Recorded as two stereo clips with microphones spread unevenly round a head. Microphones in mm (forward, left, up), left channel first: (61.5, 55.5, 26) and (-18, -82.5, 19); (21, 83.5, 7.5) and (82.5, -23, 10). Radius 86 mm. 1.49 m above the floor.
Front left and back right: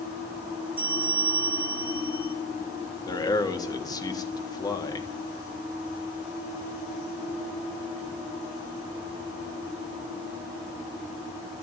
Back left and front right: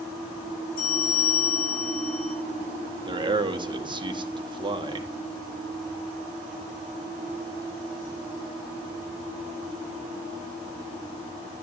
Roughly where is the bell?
Behind.